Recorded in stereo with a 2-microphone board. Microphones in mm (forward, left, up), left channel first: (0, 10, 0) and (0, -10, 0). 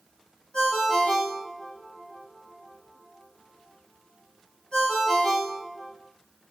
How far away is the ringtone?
About 1.1 m.